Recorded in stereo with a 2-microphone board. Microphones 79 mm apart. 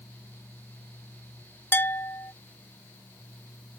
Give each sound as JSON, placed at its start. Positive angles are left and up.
{"t": 1.7, "sound": "a bell", "side_deg": 30}